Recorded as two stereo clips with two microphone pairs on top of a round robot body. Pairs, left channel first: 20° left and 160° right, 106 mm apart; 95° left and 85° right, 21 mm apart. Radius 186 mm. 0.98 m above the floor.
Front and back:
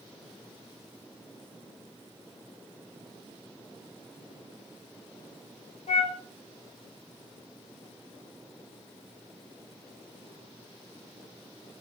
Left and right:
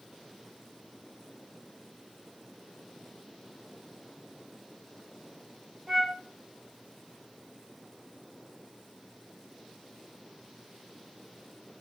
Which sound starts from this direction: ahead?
A flute, at 5.9 s.